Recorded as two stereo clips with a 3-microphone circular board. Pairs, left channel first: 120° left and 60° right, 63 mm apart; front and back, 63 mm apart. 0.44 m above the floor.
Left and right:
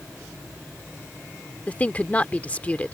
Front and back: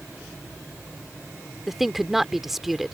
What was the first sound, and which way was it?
A woman speaking, 95° left.